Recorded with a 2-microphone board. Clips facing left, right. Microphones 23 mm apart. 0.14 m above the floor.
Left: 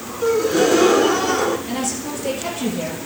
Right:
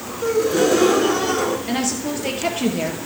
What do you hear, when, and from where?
0.2 s a gasp: 15° left (ahead or behind), 0.7 m
1.7 s a woman speaking: 35° right (ahead or behind), 2.5 m